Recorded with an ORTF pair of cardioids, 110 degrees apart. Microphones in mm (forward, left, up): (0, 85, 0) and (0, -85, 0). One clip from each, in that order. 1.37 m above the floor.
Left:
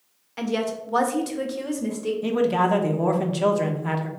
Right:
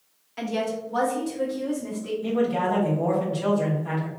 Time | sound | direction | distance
0.4 | a woman speaking | 15° left | 0.8 m
2.2 | a man speaking | 50° left | 0.8 m